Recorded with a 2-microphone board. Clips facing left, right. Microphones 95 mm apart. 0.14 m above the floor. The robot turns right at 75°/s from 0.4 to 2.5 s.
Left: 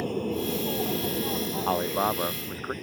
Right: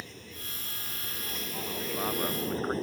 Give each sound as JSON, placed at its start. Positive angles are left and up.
{"t": 0.0, "sound": "an aircraft", "side_deg": 60}
{"t": 1.7, "sound": "a man speaking", "azimuth_deg": 115}